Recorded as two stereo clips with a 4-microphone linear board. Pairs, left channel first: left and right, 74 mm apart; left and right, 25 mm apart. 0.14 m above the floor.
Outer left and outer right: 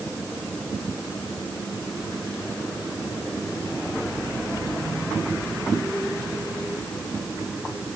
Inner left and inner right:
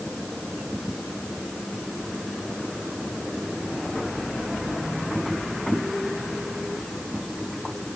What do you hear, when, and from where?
Only background noise.